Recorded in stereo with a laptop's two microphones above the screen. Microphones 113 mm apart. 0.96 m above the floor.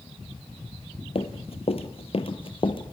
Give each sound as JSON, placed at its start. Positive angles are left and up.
{"t": 1.1, "sound": "running footsteps", "side_deg": 55, "distance_m": 1.8}